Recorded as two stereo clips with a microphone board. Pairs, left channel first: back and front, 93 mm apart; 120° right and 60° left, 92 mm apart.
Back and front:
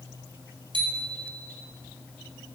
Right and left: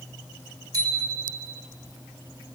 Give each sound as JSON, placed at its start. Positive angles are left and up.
{"t": 0.7, "sound": "a bicycle bell", "azimuth_deg": 15, "distance_m": 5.0}